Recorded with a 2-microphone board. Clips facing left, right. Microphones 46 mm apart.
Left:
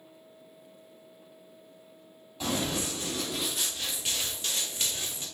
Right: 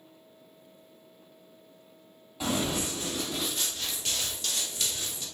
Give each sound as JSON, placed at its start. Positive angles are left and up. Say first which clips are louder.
{"t": 2.4, "sound": "running footsteps", "louder": "right 1 dB", "side_deg": -10, "distance_m": 1.8}